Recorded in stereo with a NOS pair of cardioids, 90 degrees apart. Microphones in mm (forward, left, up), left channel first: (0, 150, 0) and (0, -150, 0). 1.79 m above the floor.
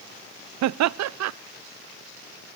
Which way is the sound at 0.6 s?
65° right.